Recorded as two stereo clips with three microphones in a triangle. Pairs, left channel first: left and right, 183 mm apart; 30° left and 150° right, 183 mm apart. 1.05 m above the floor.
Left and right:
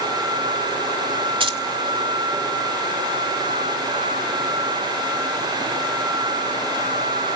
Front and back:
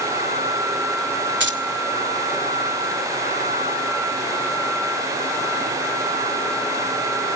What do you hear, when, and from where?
1.4 s keys jangling: 150° right, 2 m